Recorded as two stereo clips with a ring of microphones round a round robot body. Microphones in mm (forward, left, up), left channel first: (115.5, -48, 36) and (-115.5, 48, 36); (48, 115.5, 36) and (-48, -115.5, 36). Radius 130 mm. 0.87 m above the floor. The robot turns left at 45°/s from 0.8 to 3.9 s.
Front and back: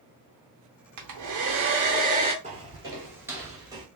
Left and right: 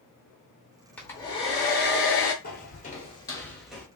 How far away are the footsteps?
About 1.1 m.